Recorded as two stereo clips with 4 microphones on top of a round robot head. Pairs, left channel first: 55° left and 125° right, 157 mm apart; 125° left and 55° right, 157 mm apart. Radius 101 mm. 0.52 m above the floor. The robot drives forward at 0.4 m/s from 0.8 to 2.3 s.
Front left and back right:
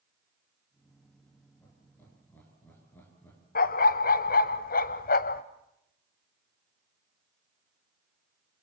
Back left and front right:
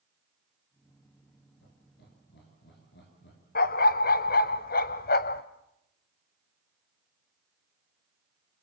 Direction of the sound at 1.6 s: 135° left.